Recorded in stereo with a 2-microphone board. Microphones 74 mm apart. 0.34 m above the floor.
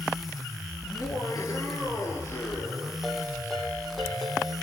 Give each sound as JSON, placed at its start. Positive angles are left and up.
{"t": 0.8, "sound": "laughter", "side_deg": 50, "distance_m": 4.5}
{"t": 3.0, "sound": "a ringtone", "side_deg": 5, "distance_m": 8.5}